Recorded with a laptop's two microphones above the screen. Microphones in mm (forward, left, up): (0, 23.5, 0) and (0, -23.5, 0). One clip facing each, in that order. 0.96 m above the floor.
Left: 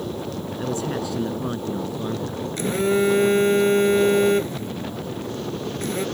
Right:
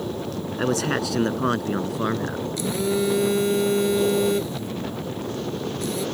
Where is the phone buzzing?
40° left (ahead or behind).